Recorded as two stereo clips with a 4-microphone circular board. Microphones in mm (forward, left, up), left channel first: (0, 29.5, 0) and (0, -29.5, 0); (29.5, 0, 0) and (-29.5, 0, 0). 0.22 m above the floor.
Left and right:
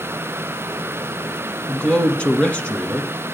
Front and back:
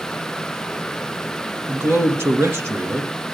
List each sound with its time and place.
1.7 s a man speaking: 155° left, 2.0 m